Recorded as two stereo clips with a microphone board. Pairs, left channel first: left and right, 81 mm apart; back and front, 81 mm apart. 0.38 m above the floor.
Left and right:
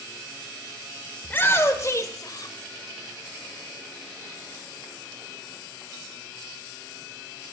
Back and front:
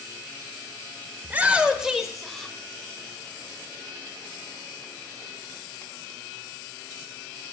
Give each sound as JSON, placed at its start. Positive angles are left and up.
{"t": 1.2, "sound": "a shout", "azimuth_deg": 45, "distance_m": 1.0}